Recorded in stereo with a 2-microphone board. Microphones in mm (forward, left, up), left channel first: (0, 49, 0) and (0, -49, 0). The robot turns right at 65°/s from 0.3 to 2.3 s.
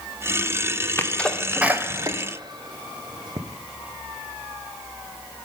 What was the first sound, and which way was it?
A sneeze, 20° left (ahead or behind).